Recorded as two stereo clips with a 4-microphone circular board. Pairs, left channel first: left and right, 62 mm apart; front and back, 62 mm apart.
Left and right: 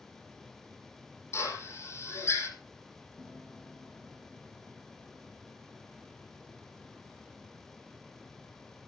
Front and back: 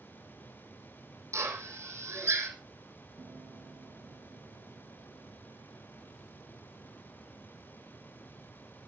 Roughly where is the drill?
Behind left.